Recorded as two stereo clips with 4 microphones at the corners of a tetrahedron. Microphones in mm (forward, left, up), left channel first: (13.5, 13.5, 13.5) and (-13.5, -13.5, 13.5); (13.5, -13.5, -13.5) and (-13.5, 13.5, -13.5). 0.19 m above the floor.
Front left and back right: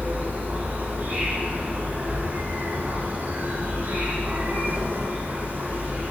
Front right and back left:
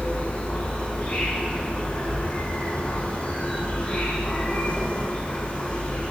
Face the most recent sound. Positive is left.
turn(degrees=-100)